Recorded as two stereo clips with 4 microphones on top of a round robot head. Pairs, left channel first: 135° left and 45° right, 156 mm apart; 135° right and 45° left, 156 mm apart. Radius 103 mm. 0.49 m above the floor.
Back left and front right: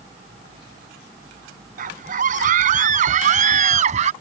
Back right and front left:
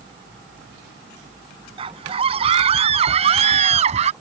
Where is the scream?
10° right; by 4.1 s straight ahead.